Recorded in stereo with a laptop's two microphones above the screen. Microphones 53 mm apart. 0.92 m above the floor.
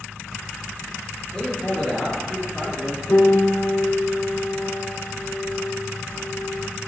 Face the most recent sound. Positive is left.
turn(degrees=90)